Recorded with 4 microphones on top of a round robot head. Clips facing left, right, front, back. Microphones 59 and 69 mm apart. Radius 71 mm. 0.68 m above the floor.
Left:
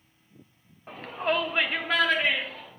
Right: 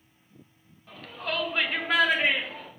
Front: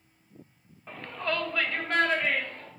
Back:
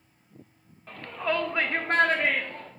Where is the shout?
75° left, 1.0 m; by 2.7 s 155° right, 1.5 m.